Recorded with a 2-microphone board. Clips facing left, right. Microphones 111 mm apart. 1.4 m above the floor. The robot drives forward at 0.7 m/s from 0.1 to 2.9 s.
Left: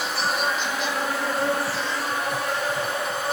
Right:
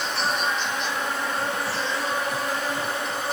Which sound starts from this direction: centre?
An insect, at 0.0 s.